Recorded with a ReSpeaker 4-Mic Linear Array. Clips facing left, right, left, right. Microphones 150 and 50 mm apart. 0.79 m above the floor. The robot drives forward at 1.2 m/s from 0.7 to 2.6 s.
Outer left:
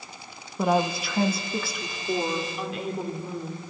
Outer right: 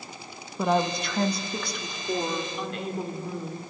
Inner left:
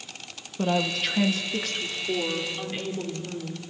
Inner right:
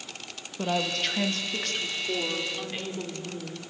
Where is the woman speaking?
5° left (ahead or behind), 1.0 m; by 3.6 s centre (ahead or behind), 3 m.